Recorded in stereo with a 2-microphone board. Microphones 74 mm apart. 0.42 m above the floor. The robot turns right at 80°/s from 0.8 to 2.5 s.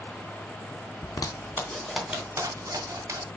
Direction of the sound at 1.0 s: 70° left (ahead or behind).